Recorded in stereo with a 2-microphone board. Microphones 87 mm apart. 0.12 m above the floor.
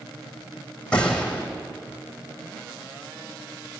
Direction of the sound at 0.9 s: 10° left (ahead or behind).